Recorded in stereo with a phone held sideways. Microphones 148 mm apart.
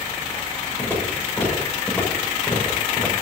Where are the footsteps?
15° left (ahead or behind), 7.5 m.